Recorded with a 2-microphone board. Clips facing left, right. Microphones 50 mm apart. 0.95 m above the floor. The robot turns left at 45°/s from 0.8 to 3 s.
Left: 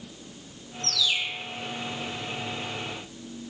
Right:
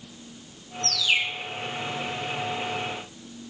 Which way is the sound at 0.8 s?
70° right (ahead or behind).